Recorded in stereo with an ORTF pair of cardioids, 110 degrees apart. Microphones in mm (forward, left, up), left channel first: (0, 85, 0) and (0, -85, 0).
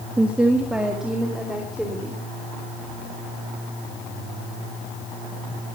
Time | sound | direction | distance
0.2 | a woman speaking | 10° right | 1.5 m